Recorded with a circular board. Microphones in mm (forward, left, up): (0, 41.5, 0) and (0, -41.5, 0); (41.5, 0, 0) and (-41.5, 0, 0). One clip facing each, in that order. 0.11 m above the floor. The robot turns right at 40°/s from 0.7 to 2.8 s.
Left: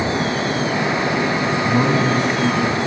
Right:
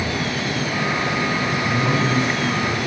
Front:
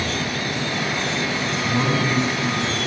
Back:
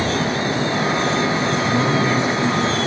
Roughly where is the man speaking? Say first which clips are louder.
Left 4 dB, back 1 dB; left.